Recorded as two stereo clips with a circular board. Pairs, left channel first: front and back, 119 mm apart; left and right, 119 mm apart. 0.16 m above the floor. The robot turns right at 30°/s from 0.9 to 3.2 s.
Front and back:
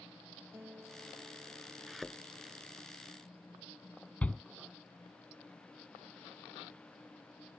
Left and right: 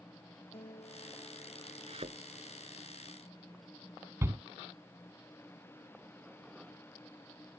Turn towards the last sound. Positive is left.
turn(degrees=-60)